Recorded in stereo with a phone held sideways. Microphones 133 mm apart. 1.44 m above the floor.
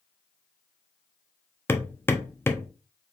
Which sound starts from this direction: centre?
Hammering, at 1.7 s.